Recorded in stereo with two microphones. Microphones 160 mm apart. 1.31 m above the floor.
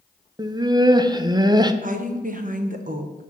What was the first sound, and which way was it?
Laughter, 25° right (ahead or behind).